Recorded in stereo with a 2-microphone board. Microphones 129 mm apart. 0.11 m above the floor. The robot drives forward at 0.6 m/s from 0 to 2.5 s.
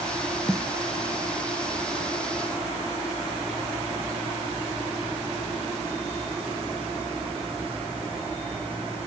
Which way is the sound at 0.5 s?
5° left (ahead or behind).